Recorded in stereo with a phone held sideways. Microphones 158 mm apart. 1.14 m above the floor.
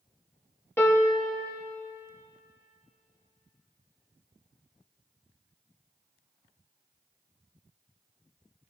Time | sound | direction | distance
0.8 | a piano | 15° left (ahead or behind) | 1.3 m